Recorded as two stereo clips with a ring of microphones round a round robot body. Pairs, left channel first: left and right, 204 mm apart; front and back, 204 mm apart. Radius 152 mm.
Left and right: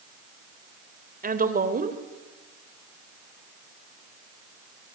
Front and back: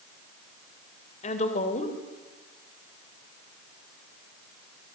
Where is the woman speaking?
55° right, 2.5 m.